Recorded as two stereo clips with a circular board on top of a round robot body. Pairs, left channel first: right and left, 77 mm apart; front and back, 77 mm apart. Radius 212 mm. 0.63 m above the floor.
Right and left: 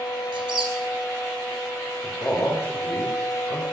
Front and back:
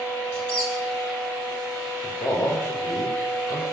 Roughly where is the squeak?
Left.